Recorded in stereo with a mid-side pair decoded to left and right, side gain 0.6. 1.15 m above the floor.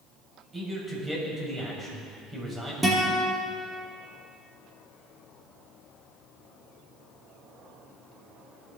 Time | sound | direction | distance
0.5 | a man speaking | 15° right | 6.5 m
2.8 | a guitar | 10° right | 5.5 m